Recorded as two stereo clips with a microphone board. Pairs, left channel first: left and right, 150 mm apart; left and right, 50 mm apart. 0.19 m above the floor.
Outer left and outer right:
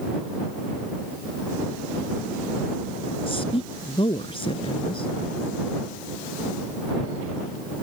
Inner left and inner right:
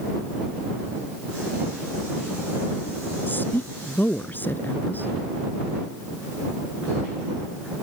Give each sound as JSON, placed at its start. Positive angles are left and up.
{"t": 3.3, "sound": "a woman speaking", "side_deg": 35}